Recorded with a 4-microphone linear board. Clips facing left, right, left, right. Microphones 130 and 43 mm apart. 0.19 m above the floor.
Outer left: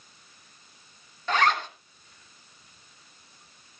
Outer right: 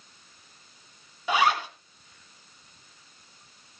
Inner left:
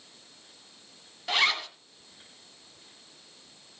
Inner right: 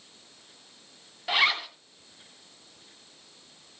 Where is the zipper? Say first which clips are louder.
Outer right 1 dB, inner right 1 dB; 10° right (ahead or behind), 1.3 m.